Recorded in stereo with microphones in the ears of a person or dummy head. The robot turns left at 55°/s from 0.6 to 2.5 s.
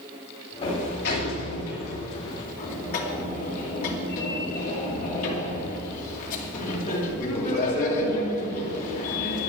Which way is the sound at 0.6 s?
150° left.